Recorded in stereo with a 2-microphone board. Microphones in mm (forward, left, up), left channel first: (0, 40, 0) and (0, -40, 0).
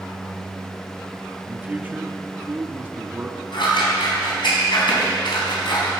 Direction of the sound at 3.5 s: 75° left (ahead or behind).